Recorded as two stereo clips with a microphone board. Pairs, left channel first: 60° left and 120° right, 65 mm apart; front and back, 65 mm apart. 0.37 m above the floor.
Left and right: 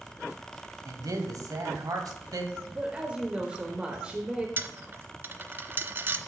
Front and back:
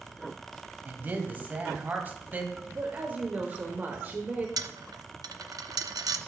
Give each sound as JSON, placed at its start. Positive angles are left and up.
{"t": 0.8, "sound": "a man speaking", "azimuth_deg": -120, "distance_m": 1.7}
{"t": 2.7, "sound": "a woman speaking", "azimuth_deg": -175, "distance_m": 1.1}
{"t": 4.6, "sound": "a dropped coin", "azimuth_deg": 180, "distance_m": 0.6}